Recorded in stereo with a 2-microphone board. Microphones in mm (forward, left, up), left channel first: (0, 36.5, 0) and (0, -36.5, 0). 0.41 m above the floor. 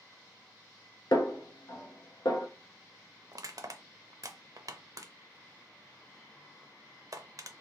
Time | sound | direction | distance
1.1 | a snare drum | 75° left (ahead or behind) | 0.8 m
3.3 | crushing | 55° right (ahead or behind) | 0.5 m